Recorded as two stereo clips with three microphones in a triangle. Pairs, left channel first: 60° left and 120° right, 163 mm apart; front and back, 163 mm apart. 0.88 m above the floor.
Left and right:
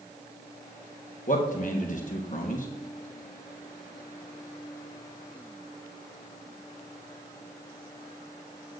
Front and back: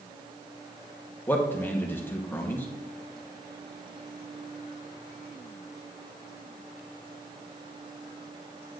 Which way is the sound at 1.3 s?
75° left.